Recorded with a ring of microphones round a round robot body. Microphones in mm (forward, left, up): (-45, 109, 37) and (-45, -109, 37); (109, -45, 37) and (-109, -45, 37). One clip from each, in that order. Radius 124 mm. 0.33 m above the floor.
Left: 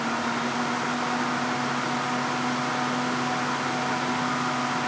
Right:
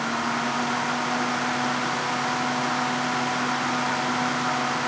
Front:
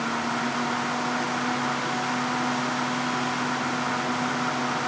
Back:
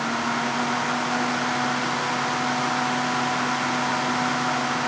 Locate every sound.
Only background noise.